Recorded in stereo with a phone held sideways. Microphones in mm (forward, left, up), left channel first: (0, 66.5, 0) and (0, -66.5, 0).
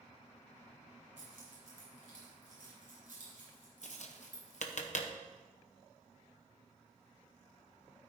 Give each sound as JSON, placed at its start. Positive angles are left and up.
{"t": 1.2, "sound": "keys jangling", "side_deg": -80, "distance_m": 5.0}
{"t": 3.8, "sound": "tapping", "side_deg": 60, "distance_m": 0.8}